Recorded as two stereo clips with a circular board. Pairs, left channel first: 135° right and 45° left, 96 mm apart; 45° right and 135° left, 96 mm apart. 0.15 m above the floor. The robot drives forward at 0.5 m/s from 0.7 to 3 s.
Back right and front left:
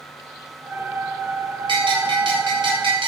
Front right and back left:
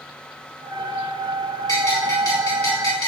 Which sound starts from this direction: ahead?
A bell, at 1.7 s.